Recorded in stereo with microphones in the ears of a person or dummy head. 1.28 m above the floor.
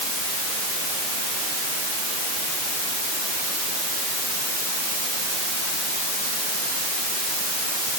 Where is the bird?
I don't hear a bird.